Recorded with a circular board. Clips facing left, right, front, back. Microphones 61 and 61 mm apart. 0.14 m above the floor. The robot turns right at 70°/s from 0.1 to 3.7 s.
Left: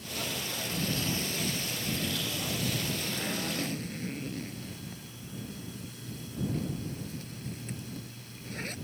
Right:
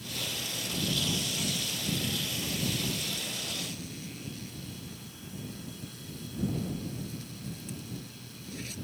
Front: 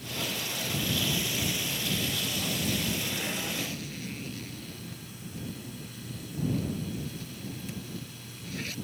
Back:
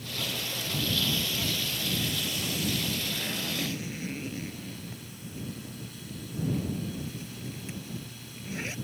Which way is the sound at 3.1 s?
75° left.